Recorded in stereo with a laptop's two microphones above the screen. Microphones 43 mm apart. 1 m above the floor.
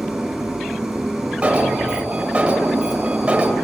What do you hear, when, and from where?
0.0 s an engine running: 10° right (ahead or behind), 7.5 m
1.4 s an alarm: 30° right (ahead or behind), 2.5 m